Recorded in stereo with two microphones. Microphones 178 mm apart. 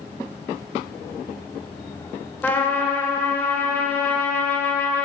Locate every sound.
2.4 s a trumpet: 10° left (ahead or behind), 0.7 m